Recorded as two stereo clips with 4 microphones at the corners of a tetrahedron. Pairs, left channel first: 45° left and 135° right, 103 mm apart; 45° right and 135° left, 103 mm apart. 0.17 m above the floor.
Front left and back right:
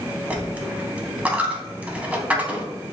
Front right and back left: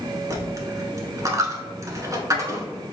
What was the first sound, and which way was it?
A dropped coin, 155° left.